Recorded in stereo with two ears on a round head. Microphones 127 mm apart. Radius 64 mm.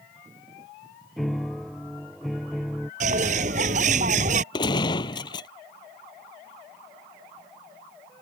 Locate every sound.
1.2 s a piano: centre (ahead or behind)
3.0 s a bird: 60° right (ahead or behind)
4.5 s a gunshot: 35° left (ahead or behind)